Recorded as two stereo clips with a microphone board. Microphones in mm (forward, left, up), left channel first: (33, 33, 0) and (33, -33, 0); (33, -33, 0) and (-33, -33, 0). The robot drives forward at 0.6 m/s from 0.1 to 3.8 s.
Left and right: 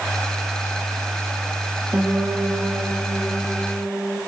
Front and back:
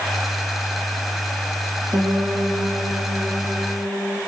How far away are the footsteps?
No footsteps in this recording.